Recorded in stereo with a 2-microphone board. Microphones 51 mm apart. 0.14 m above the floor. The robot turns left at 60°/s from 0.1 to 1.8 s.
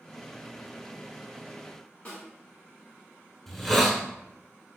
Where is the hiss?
Centre (ahead or behind), 0.5 m.